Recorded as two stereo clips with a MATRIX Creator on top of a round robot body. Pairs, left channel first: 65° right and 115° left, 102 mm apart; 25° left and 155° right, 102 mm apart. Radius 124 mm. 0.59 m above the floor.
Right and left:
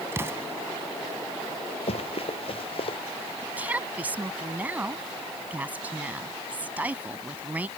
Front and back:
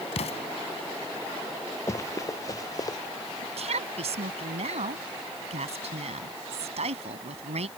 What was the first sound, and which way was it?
An explosion, 45° left.